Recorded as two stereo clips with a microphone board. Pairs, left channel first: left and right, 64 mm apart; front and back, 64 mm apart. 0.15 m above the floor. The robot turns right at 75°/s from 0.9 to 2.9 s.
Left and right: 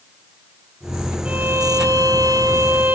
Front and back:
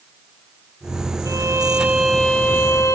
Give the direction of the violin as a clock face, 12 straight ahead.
5 o'clock.